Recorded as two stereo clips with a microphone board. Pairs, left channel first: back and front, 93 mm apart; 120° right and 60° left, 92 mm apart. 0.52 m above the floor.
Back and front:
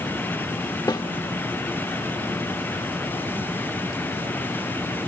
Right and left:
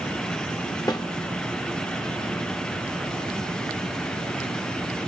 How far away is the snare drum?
About 0.8 m.